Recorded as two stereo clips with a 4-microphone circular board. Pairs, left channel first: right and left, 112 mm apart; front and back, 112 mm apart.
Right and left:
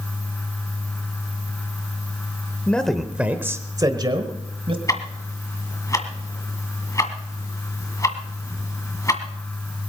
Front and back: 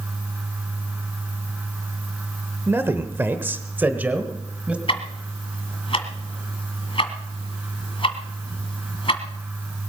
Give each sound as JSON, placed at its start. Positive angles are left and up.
{"t": 2.7, "sound": "a man speaking", "azimuth_deg": -150, "distance_m": 1.0}
{"t": 4.9, "sound": "ticking", "azimuth_deg": -30, "distance_m": 1.6}